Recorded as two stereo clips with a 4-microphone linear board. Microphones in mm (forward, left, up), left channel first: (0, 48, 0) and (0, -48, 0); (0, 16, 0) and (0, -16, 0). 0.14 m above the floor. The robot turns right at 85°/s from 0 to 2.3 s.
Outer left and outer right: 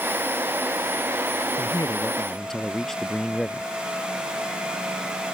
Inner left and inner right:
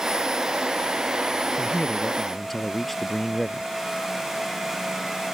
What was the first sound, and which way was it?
A man speaking, 115° left.